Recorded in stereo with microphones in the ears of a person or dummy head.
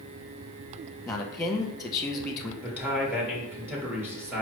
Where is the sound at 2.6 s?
5° left (ahead or behind), 1.1 m.